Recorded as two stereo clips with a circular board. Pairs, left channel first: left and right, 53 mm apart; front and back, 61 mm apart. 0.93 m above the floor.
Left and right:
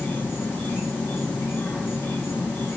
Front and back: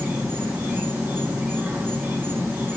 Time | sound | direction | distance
0.0 | an insect | 130° left | 2 m